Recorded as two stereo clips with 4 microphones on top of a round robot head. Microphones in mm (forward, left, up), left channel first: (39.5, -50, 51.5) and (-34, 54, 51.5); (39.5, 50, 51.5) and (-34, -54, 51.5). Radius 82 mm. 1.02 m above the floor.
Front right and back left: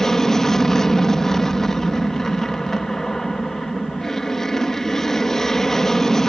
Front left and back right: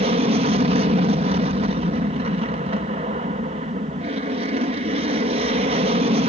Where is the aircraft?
140° right.